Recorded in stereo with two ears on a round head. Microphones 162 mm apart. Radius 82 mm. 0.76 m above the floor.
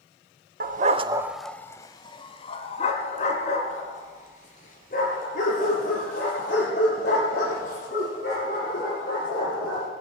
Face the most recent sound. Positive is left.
turn(degrees=50)  # may be behind; listen again after turning